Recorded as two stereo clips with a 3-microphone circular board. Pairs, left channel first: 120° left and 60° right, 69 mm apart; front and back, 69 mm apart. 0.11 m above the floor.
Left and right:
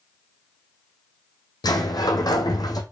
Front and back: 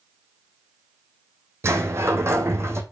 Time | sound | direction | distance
1.6 | a sliding door | 130° left | 1.2 m